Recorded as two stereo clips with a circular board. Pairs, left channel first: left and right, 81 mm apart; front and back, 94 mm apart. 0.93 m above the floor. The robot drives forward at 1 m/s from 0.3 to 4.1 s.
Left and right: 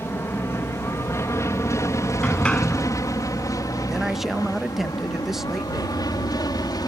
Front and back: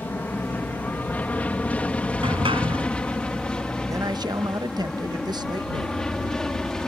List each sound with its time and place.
0.0 s an aircraft: 55° left; by 6.9 s 80° left
2.2 s a sliding door: 165° left; by 2.9 s 170° left
3.9 s a man speaking: 170° right; by 6.0 s 175° right